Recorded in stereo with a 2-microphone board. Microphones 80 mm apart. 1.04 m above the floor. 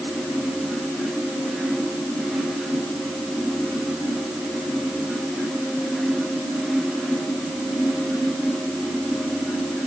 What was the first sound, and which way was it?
Only background noise.